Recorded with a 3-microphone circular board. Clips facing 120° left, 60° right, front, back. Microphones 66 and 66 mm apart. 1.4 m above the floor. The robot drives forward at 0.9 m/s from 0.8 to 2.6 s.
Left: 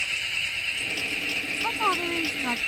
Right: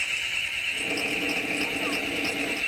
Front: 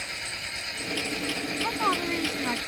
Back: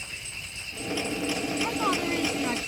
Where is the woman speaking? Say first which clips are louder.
Left 4 dB, front 2 dB; 80° left; by 2.6 s 85° left.